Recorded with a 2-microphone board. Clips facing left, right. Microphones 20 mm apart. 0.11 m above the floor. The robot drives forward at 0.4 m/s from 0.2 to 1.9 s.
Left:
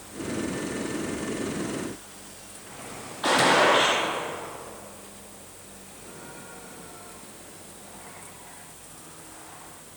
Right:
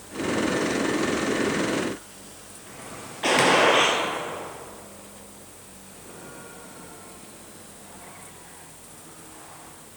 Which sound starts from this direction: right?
A gunshot, at 3.2 s.